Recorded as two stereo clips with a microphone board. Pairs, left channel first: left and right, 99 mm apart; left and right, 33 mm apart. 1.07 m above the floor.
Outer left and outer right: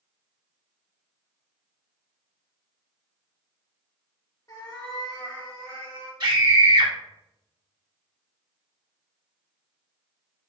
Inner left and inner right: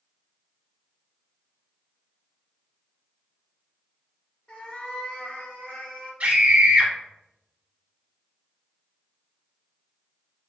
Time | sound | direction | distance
4.5 | a cat meowing | 35° left (ahead or behind) | 0.7 m
6.2 | a scream | 40° right (ahead or behind) | 0.9 m